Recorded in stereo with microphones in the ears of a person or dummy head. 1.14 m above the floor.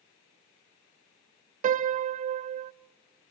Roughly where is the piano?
Right.